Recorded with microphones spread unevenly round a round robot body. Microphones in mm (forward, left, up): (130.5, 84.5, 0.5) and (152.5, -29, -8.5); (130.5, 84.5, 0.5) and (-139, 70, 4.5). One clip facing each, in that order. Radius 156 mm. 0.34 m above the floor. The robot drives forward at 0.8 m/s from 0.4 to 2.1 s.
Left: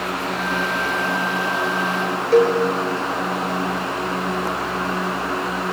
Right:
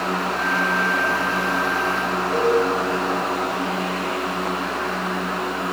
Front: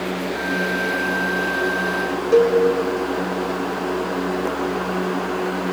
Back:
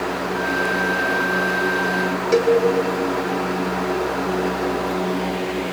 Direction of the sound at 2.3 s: 135° left.